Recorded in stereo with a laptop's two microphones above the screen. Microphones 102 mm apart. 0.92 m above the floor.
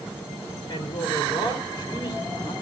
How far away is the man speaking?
About 3 m.